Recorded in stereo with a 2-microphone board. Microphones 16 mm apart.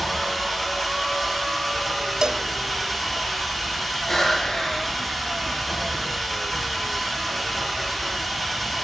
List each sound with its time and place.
0.0 s an engine running: 5° left (ahead or behind), 8.5 m
2.2 s a cowbell: 45° right (ahead or behind), 0.6 m
4.1 s breathing: 35° left (ahead or behind), 8 m